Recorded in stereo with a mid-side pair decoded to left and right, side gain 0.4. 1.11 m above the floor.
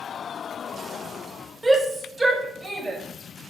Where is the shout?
20° right, 4.5 m; by 3.0 s 25° right, 4.5 m.